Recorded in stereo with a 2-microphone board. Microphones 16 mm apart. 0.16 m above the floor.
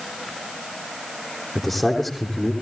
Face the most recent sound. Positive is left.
turn(degrees=10)  # may be behind; listen again after turning